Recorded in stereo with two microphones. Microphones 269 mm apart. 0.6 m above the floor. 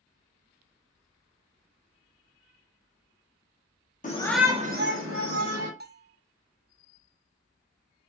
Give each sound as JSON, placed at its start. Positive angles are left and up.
{"t": 4.0, "sound": "a shout", "side_deg": 30, "distance_m": 0.8}
{"t": 5.8, "sound": "a bell", "side_deg": -40, "distance_m": 0.6}